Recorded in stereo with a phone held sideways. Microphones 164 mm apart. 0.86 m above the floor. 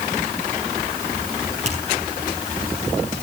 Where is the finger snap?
45° right (ahead or behind), 7.5 m.